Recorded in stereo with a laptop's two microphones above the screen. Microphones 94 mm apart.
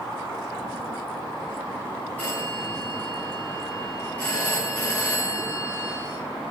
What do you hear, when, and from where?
2.2 s a phone ringing: 15° left (ahead or behind), 6 m